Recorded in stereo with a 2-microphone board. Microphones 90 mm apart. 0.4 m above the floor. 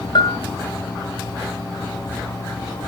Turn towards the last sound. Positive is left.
turn(degrees=60)  # may be behind; listen again after turning